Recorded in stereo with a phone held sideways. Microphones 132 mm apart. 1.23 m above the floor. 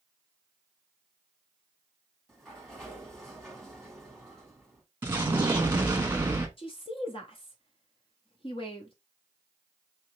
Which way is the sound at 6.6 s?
45° left (ahead or behind).